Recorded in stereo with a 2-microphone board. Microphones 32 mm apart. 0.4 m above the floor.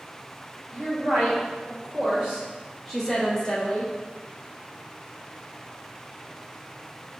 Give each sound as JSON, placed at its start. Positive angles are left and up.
{"t": 0.7, "sound": "a woman speaking", "side_deg": -45, "distance_m": 1.8}